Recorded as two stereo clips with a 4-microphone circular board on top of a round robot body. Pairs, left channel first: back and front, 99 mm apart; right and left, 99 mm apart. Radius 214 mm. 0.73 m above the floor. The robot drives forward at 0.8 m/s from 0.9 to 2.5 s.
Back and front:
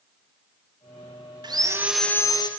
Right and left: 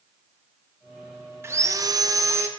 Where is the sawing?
30° left, 0.7 m; by 2.5 s 150° left, 0.7 m.